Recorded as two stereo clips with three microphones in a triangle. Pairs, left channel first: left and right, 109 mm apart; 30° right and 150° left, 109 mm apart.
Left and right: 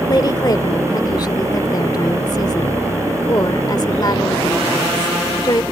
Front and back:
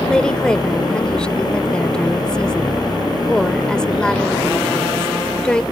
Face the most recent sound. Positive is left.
turn(degrees=50)